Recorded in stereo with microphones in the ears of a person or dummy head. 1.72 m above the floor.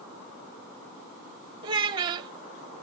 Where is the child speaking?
25° right (ahead or behind), 0.9 m.